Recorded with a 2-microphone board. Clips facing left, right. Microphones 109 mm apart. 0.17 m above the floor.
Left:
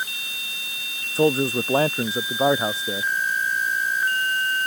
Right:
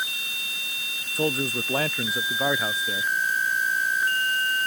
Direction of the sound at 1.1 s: 30° left (ahead or behind).